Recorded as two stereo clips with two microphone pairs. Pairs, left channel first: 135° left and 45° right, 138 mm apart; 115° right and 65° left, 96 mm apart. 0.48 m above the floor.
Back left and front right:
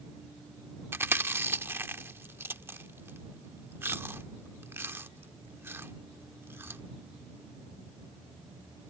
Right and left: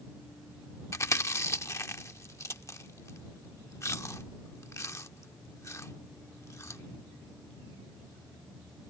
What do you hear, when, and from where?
0.9 s chewing: 100° right